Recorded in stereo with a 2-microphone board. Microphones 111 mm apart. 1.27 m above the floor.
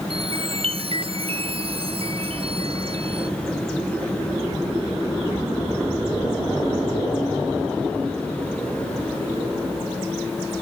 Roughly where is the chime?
Right.